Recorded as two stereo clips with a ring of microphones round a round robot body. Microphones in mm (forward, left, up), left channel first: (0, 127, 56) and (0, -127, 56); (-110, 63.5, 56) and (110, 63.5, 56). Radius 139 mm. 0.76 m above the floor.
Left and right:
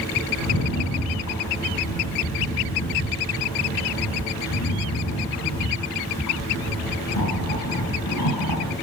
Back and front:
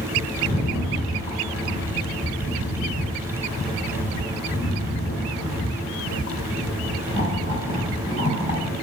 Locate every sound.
0.4 s a rattle: 115° left, 8 m